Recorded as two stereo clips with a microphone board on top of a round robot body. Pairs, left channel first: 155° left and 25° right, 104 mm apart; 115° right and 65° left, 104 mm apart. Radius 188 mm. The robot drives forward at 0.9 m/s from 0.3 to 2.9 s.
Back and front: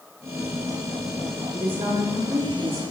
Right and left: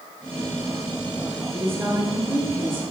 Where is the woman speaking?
Straight ahead, 4 m.